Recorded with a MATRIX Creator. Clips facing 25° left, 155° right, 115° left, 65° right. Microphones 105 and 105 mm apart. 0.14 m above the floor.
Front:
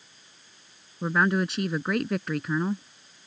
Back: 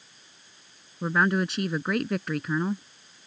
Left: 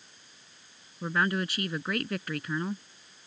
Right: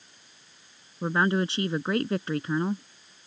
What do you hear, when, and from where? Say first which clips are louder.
1.0 s a woman speaking: even, right 4 dB; 70° right